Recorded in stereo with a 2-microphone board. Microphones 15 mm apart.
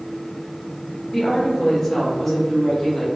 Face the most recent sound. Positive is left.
turn(degrees=25)  # may be behind; listen again after turning